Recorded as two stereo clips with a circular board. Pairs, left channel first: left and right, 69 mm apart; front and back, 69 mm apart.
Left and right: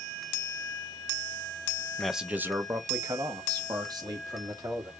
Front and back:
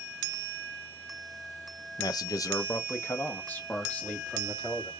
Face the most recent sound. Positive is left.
turn(degrees=-75)